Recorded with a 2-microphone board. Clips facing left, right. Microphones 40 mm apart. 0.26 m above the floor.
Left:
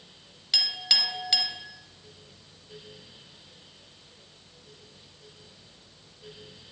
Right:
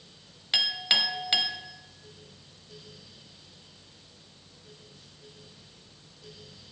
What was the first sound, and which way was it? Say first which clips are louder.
A clink: right 3 dB; 25° right (ahead or behind).